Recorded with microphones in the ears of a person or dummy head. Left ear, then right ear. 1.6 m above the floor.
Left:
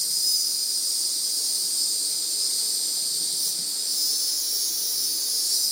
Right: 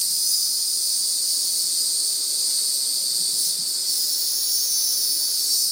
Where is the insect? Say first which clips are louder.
Right 1 dB; 60° right (ahead or behind), 2 m.